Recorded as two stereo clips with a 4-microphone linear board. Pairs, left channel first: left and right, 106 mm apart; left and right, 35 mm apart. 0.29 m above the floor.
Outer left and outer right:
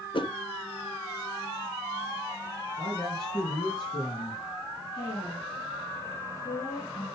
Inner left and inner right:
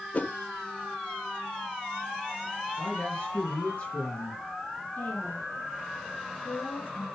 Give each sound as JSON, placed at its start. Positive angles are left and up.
{"t": 0.1, "sound": "a whoosh", "side_deg": 55, "distance_m": 0.8}
{"t": 2.8, "sound": "a woman speaking", "side_deg": 45, "distance_m": 3.5}
{"t": 5.0, "sound": "a woman speaking", "side_deg": 40, "distance_m": 5.0}